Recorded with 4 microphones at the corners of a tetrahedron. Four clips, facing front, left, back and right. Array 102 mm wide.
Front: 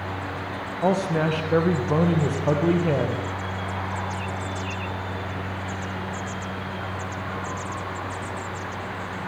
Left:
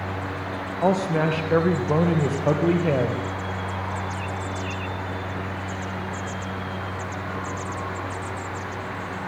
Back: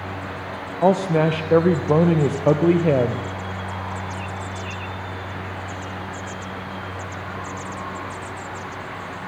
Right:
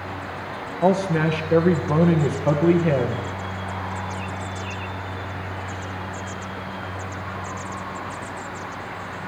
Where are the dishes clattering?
I don't hear dishes clattering.